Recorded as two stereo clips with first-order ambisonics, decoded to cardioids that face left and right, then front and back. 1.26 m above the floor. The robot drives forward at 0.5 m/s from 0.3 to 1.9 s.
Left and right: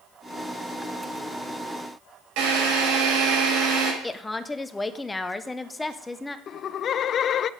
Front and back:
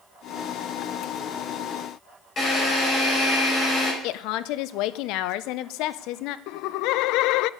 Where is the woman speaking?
10° left, 0.8 m.